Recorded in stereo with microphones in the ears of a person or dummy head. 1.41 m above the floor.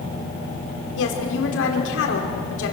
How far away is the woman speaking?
About 4.5 m.